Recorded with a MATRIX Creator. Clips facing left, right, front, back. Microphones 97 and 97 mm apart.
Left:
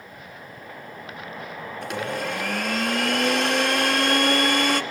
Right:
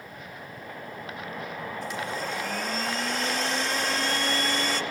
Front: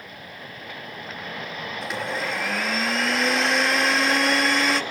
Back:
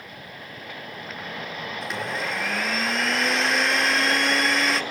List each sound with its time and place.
1.8 s a blender: 90° left, 0.8 m